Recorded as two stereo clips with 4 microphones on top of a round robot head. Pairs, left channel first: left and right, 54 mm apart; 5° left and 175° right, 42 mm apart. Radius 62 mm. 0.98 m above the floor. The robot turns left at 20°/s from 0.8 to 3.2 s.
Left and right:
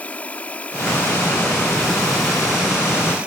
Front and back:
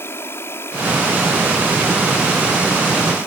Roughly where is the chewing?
I don't hear chewing.